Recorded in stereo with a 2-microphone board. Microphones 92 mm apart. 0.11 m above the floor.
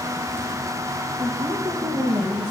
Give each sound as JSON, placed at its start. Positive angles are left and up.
{"t": 1.2, "sound": "a woman speaking", "side_deg": -50, "distance_m": 5.0}